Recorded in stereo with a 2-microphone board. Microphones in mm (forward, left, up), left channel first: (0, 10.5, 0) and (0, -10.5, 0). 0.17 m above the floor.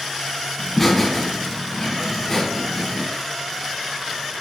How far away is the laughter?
About 1.7 m.